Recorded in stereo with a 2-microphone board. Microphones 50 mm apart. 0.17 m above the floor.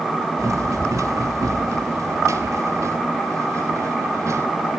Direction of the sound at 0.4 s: 85° right.